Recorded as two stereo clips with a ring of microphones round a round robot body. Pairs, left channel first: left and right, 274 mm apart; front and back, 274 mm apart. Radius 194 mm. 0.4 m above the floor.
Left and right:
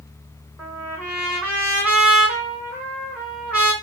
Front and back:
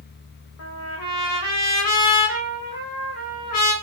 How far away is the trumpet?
About 2 m.